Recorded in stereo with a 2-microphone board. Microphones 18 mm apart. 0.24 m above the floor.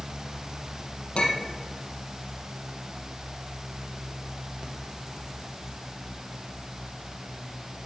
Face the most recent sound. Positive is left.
turn(degrees=75)  # may be behind; listen again after turning